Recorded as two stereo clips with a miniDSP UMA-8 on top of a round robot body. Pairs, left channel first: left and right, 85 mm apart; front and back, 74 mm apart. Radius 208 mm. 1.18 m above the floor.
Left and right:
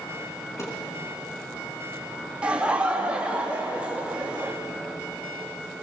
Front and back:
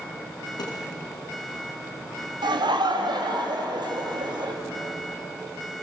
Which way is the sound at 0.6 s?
30° left.